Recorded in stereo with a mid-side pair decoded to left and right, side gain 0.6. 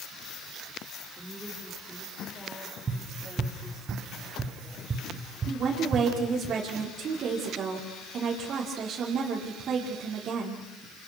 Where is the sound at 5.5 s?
50° right, 5.5 m.